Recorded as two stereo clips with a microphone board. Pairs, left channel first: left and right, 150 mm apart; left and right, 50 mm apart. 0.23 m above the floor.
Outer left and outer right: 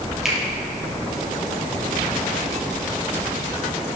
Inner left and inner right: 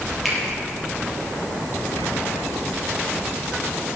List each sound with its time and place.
0.2 s a finger snap: centre (ahead or behind), 5 m